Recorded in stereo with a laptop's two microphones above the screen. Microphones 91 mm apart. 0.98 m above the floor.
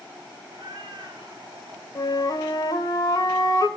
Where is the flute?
45° left (ahead or behind), 1.2 m.